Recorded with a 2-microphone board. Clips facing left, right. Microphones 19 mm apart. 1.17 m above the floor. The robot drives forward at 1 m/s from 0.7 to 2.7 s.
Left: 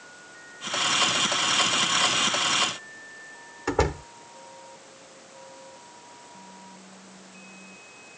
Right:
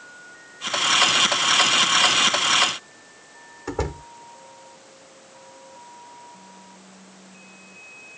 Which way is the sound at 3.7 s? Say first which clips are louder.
Left 4 dB; 25° left (ahead or behind).